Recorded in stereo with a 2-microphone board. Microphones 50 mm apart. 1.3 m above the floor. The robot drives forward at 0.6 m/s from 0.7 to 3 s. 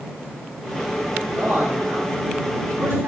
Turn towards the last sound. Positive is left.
turn(degrees=-55)  # may be behind; listen again after turning